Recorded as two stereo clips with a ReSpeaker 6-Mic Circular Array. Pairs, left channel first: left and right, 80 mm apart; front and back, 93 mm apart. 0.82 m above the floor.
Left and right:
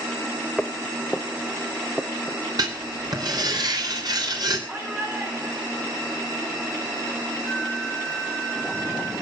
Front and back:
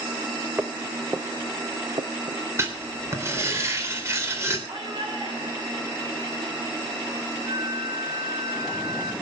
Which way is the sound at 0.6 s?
135° left.